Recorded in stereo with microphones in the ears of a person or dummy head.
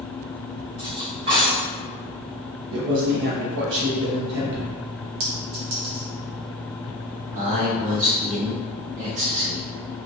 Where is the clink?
40° right (ahead or behind), 0.6 m.